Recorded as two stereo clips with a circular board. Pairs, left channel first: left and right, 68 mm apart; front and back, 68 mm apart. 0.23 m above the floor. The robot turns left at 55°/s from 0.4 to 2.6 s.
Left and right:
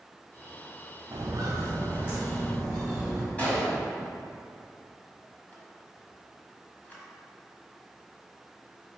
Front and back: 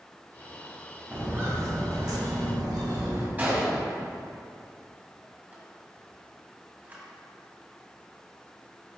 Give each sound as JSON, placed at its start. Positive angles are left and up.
{"t": 1.1, "sound": "footsteps", "azimuth_deg": -110, "distance_m": 1.8}
{"t": 3.4, "sound": "a gunshot", "azimuth_deg": 140, "distance_m": 1.5}